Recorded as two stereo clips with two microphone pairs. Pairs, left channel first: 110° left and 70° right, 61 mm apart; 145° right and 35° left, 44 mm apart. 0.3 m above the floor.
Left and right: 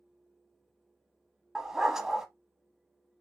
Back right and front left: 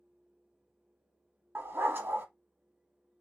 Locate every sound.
1.6 s a dog barking: 10° left, 0.8 m